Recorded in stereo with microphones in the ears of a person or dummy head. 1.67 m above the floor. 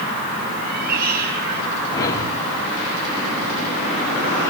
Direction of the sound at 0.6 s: 50° right (ahead or behind).